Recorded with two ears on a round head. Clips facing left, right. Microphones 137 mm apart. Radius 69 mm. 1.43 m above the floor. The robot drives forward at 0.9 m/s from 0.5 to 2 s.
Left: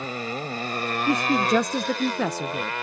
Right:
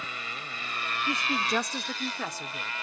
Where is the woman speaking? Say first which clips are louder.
Left 10 dB; 70° left (ahead or behind); by 2.7 s 60° left (ahead or behind).